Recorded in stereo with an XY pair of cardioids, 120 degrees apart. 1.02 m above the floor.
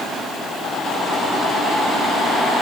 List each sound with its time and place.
Only background noise.